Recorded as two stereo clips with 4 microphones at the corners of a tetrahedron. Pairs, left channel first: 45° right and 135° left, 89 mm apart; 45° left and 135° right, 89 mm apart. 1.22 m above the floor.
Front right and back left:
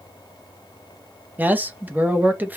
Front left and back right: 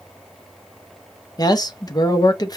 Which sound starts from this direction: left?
A man speaking, at 1.4 s.